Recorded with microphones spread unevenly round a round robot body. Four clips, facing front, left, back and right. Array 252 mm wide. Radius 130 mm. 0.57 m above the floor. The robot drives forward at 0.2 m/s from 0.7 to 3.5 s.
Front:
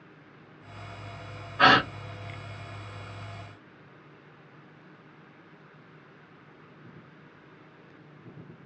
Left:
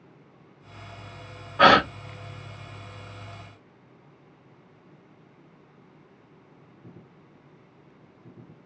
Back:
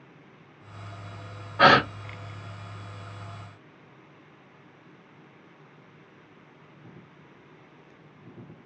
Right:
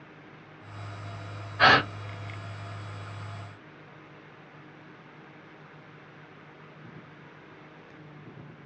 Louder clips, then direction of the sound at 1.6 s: Left 4 dB, back 2 dB; 125° left.